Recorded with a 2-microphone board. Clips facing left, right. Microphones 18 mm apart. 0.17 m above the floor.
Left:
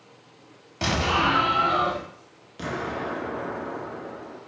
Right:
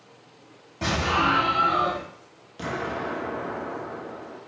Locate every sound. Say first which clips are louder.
0.8 s an explosion: even; 55° left (ahead or behind), 0.9 m
2.6 s an explosion: even; 5° left (ahead or behind), 0.5 m